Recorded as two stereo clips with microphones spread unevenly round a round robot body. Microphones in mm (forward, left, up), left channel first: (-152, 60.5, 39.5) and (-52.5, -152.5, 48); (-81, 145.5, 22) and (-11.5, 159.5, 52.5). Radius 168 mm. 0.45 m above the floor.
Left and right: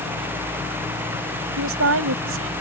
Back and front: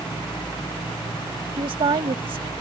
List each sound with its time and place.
1.6 s a woman speaking: 25° right